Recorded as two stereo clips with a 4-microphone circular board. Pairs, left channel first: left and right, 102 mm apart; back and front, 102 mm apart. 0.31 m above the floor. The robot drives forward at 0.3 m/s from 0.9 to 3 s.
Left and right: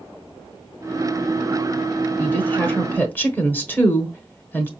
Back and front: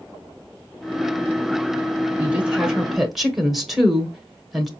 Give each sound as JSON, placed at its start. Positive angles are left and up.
{"t": 2.2, "sound": "a woman speaking", "azimuth_deg": 50, "distance_m": 1.0}